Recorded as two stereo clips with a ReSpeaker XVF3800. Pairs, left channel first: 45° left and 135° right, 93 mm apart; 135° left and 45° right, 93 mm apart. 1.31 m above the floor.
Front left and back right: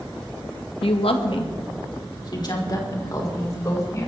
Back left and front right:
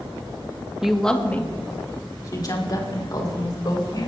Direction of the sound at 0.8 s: 40° left.